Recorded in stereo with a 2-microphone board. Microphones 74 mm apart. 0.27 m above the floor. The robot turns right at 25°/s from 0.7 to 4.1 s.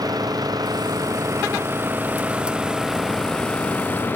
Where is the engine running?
60° right; by 4.2 s 25° left.